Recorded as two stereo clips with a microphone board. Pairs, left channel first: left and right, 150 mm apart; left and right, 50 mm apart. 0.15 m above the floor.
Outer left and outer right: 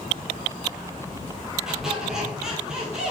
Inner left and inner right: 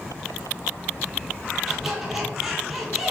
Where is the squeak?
5° right (ahead or behind), 1.2 m.